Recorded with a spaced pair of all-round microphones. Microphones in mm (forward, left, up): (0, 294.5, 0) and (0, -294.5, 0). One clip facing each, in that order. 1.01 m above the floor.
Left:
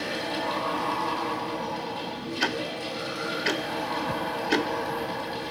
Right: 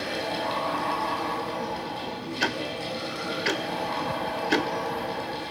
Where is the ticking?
Centre (ahead or behind), 0.7 m.